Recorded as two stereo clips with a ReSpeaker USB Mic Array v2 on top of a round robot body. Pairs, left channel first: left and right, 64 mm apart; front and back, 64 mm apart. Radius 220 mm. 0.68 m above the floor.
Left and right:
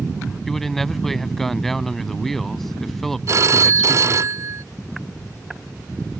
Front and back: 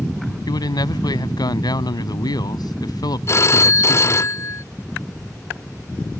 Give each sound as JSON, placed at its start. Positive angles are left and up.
{"t": 0.5, "sound": "a man speaking", "azimuth_deg": 5}
{"t": 3.3, "sound": "a phone ringing", "azimuth_deg": -45}